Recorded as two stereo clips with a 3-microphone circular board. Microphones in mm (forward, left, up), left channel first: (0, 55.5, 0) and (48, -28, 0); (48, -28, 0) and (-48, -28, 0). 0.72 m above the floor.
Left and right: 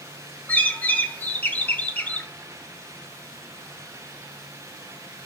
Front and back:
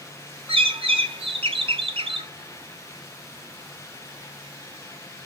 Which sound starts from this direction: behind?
A bird, at 0.5 s.